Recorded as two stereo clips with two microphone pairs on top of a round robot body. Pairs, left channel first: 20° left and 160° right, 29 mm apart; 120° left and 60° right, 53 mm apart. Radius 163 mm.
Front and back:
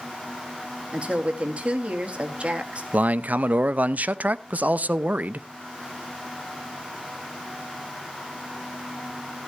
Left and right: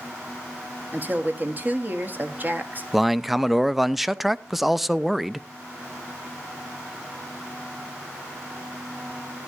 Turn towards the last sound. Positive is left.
turn(degrees=-145)